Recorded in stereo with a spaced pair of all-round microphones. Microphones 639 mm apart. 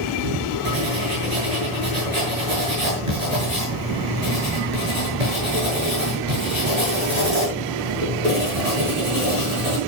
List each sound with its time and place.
0.7 s writing: 80° right, 8 m